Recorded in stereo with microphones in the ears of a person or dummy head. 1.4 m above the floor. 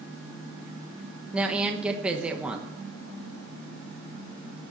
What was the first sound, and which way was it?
A woman speaking, 5° right (ahead or behind).